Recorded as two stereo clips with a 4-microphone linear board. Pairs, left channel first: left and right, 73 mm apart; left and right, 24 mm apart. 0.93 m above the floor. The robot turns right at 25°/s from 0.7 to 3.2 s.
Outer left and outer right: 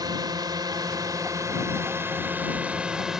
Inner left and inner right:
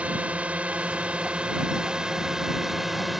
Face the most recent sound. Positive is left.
turn(degrees=-5)